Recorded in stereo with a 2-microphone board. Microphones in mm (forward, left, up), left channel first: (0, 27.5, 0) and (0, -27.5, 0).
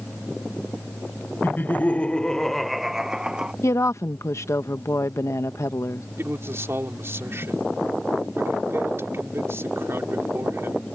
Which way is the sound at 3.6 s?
65° left (ahead or behind).